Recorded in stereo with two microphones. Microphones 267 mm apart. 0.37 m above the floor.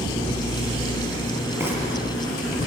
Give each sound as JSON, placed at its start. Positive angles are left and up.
{"t": 1.6, "sound": "frying", "side_deg": -10, "distance_m": 6.5}